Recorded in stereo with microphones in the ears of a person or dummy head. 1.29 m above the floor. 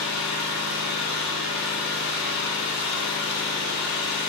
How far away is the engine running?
About 2.5 m.